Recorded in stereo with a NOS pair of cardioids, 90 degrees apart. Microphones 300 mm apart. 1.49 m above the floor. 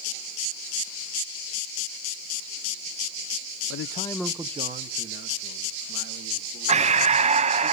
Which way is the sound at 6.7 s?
25° right.